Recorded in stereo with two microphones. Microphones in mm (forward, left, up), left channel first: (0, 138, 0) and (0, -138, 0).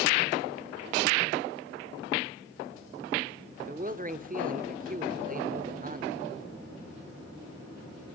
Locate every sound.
3.6 s a man speaking: 30° right (ahead or behind), 1.0 m